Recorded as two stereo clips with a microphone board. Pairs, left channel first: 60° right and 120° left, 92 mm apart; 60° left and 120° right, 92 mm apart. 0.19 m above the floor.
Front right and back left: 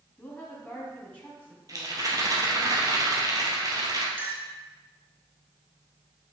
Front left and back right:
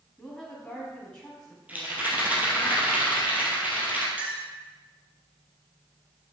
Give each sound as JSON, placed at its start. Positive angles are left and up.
{"t": 0.2, "sound": "a woman speaking", "azimuth_deg": -10, "distance_m": 1.3}
{"t": 1.7, "sound": "a rattle", "azimuth_deg": 170, "distance_m": 1.9}
{"t": 4.2, "sound": "a clink", "azimuth_deg": 175, "distance_m": 1.3}